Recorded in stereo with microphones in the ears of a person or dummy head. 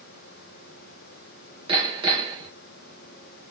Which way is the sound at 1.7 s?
30° right (ahead or behind).